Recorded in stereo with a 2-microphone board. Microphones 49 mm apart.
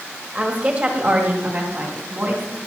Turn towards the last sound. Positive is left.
turn(degrees=-45)  # may be behind; listen again after turning